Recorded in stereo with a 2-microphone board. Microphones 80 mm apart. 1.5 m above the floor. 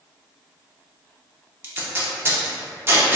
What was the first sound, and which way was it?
Tape being pulled, 30° right (ahead or behind).